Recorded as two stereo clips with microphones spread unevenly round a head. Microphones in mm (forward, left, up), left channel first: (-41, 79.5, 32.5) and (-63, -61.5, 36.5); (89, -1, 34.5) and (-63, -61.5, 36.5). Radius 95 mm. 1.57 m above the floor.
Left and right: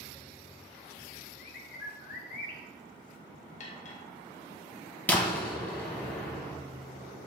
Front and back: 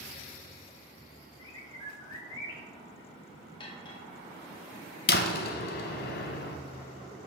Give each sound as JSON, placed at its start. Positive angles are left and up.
{"t": 1.4, "sound": "a bird", "azimuth_deg": 95, "distance_m": 1.4}
{"t": 3.6, "sound": "cutlery clinking", "azimuth_deg": 80, "distance_m": 0.9}
{"t": 5.1, "sound": "a door slam", "azimuth_deg": 0, "distance_m": 0.8}